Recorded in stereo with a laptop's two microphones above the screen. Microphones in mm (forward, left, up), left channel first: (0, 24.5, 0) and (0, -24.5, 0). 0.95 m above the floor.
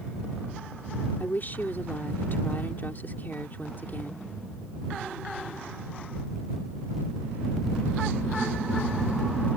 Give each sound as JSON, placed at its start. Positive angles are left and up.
{"t": 1.2, "sound": "a woman speaking", "side_deg": 50}